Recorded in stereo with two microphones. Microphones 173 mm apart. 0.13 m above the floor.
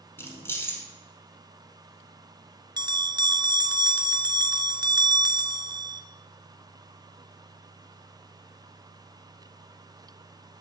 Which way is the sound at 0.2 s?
15° left (ahead or behind).